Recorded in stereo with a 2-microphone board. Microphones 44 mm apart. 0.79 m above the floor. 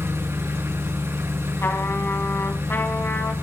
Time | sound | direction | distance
0.0 | an engine running | 85° right | 7 m
1.6 | a trumpet | 60° left (ahead or behind) | 3.5 m